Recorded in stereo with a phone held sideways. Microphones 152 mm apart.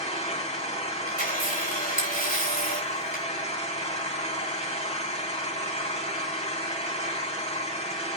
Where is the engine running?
50° left (ahead or behind), 3 m.